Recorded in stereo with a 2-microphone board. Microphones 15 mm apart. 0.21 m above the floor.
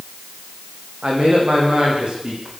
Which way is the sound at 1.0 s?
80° right.